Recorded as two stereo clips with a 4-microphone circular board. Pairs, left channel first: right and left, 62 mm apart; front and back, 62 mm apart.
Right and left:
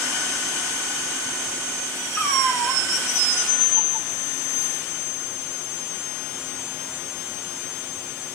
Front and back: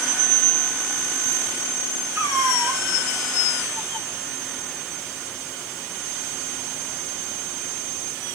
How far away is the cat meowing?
About 1.8 m.